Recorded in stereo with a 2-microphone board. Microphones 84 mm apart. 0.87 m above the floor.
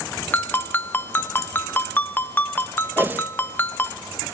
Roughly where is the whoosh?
Right.